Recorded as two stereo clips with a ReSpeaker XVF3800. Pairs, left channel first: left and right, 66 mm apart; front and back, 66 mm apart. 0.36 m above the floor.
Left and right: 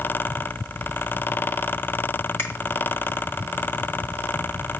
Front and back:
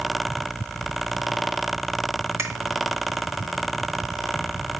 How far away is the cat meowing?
I don't hear a cat meowing.